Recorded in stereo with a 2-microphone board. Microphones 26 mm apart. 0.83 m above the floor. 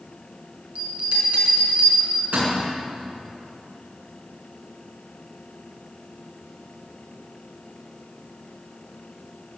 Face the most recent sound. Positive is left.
turn(degrees=-75)  # may be behind; listen again after turning